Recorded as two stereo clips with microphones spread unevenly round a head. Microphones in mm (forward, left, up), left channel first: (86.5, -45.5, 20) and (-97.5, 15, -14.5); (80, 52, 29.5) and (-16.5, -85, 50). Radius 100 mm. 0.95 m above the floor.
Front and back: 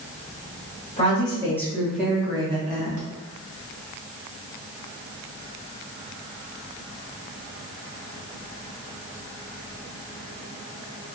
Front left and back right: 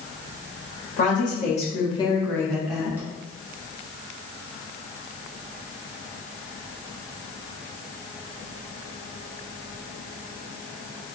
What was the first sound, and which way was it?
A woman speaking, 50° left.